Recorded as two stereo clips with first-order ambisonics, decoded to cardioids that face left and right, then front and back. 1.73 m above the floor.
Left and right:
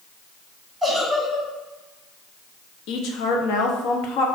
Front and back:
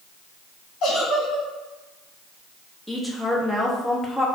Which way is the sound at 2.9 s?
90° left.